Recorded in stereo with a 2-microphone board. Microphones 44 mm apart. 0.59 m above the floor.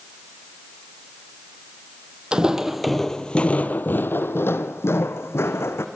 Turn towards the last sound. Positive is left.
turn(degrees=80)